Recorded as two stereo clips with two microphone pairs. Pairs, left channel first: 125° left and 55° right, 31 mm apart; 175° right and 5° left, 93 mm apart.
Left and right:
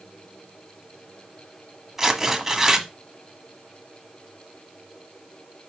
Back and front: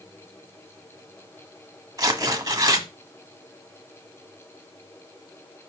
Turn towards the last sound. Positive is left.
turn(degrees=15)